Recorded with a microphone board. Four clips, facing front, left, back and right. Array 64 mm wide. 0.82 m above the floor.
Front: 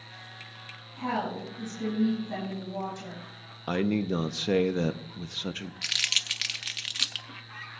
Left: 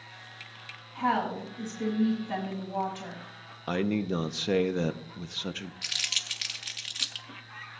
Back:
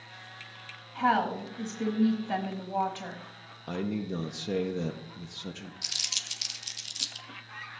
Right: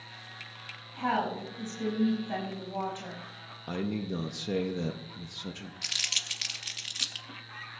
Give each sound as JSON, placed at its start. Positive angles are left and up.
{"t": 0.9, "sound": "a woman speaking", "azimuth_deg": 180, "distance_m": 4.0}
{"t": 3.7, "sound": "a man speaking", "azimuth_deg": 40, "distance_m": 0.7}
{"t": 5.8, "sound": "crumpling", "azimuth_deg": 0, "distance_m": 0.6}